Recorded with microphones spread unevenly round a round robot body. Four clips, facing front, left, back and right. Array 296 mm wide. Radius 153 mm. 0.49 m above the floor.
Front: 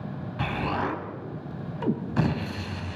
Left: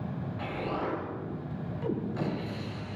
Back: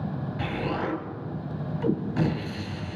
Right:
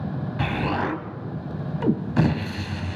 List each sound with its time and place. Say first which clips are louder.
0.4 s an explosion: right 8 dB, front 2 dB; 80° right, 2.5 m